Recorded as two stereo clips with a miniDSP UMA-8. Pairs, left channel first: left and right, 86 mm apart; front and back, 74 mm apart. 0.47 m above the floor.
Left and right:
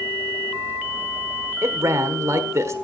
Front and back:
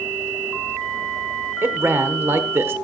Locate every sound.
1.6 s a man speaking: 130° right, 1.2 m